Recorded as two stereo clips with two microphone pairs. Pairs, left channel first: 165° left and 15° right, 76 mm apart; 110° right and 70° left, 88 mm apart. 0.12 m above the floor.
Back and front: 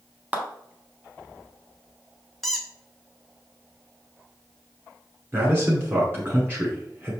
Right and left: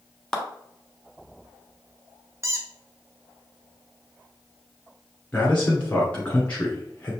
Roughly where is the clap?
Ahead right.